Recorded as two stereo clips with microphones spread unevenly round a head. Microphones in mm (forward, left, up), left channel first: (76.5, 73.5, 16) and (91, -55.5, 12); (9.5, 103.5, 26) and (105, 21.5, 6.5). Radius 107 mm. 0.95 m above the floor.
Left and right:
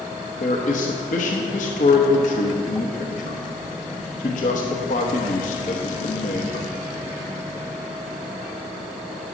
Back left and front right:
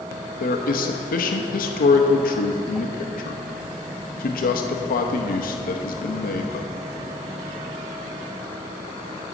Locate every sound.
0.4 s a man speaking: 145° left, 0.8 m